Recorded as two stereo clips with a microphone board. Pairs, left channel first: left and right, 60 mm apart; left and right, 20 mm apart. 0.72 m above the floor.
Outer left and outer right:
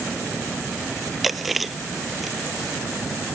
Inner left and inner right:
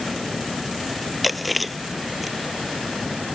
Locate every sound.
1.2 s chewing: 5° right (ahead or behind)